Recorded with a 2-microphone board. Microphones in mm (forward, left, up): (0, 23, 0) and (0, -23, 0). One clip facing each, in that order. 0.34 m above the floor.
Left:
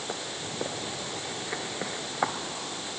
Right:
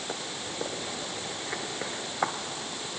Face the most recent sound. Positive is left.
No sound to turn to.